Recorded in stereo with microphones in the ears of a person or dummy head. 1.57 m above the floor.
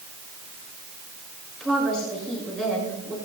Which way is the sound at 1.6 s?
5° left (ahead or behind).